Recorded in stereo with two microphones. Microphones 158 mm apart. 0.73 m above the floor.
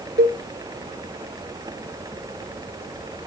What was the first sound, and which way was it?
A cowbell, 75° right (ahead or behind).